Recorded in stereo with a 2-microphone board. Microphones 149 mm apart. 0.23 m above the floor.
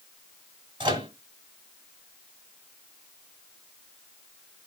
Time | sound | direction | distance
0.8 | a microwave | 35° right (ahead or behind) | 1.7 m